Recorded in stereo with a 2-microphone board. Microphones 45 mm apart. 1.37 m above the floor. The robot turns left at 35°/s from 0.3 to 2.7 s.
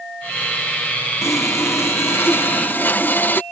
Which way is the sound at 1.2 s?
95° left.